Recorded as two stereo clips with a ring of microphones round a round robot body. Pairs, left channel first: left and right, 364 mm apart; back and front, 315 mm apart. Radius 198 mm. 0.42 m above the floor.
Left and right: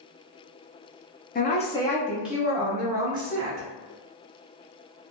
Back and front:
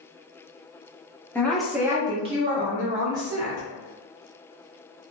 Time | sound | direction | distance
1.4 | a woman speaking | 105° left | 1.0 m